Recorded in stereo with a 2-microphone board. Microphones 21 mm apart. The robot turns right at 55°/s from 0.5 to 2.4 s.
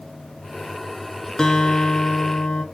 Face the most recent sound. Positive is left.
turn(degrees=90)